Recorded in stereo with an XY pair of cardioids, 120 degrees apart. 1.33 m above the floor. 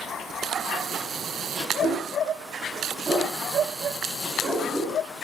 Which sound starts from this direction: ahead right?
A dog barking, at 1.8 s.